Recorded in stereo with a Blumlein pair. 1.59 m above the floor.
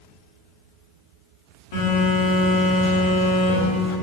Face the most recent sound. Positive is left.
turn(degrees=55)